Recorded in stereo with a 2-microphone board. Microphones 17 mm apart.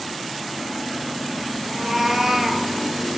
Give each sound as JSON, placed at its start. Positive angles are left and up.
{"t": 1.6, "sound": "a cat meowing", "side_deg": -15, "distance_m": 1.5}